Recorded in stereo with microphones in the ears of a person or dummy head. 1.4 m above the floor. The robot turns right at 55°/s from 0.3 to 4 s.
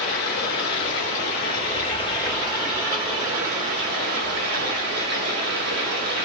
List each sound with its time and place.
0.0 s running water: 55° left, 1.4 m; by 6.3 s 100° right, 1.4 m